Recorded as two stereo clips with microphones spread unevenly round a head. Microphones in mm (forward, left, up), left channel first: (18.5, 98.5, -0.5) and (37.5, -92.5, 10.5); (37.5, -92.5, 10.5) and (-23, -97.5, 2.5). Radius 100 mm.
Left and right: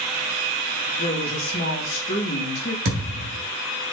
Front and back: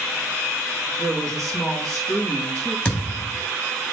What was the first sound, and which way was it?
A woman speaking, 55° left.